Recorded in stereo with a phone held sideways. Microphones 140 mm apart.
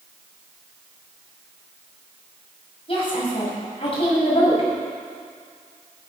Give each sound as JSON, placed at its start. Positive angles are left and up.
{"t": 2.9, "sound": "a woman speaking", "side_deg": 40, "distance_m": 6.0}